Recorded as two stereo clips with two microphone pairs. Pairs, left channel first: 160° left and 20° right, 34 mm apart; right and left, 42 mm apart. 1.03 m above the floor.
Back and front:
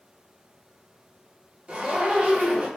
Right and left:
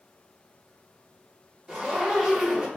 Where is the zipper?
20° left, 0.8 m.